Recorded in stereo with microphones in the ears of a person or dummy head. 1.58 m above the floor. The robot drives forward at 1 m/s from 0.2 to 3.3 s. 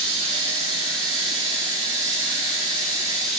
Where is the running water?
75° right (ahead or behind), 5 m; by 3.4 s 50° right (ahead or behind), 6 m.